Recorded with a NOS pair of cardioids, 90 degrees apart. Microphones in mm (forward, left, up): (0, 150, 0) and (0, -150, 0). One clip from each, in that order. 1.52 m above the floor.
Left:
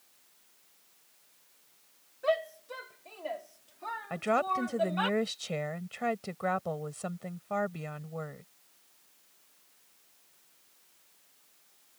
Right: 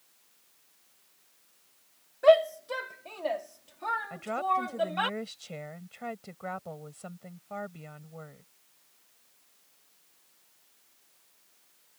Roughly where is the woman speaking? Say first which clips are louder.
Left 4 dB; ahead left.